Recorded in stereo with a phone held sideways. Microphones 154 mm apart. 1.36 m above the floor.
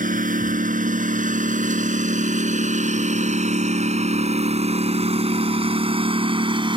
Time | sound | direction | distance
0.0 | a lawn mower | 60° right (ahead or behind) | ?